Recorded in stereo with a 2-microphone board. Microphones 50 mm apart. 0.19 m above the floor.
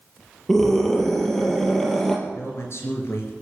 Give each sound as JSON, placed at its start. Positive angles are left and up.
{"t": 0.5, "sound": "a scream", "side_deg": 5, "distance_m": 5.0}
{"t": 2.3, "sound": "a man speaking", "side_deg": 55, "distance_m": 4.0}